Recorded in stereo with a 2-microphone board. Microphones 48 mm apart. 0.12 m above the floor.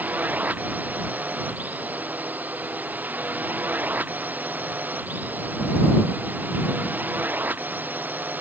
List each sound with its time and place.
0.0 s a drone: 35° right (ahead or behind); by 8.4 s 40° right (ahead or behind)